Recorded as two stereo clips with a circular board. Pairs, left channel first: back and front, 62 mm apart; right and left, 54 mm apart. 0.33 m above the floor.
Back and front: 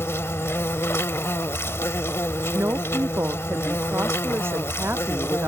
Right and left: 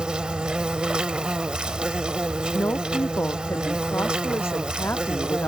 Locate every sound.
0.0 s an insect: 155° left
2.5 s a woman speaking: 50° right